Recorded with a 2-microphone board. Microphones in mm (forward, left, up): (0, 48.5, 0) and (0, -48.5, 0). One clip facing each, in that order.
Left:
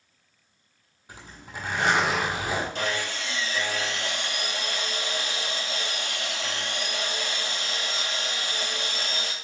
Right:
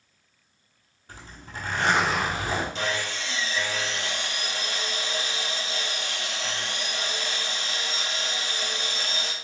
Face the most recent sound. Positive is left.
turn(degrees=50)  # may be behind; listen again after turning